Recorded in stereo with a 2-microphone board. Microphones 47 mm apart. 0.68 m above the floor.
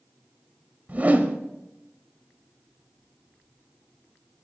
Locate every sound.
0.9 s a whoosh: 40° right (ahead or behind), 1.1 m